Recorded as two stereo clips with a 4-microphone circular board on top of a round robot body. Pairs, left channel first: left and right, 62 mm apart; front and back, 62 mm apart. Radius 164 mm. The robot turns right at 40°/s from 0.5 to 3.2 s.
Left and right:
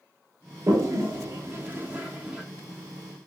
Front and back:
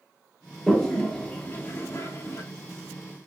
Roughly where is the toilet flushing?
Right.